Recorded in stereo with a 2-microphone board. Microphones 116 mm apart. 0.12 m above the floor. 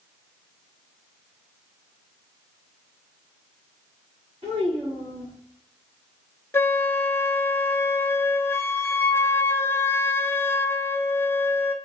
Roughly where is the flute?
Left.